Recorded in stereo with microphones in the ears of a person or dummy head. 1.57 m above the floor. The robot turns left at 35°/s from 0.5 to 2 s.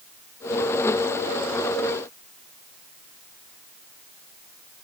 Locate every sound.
Only background noise.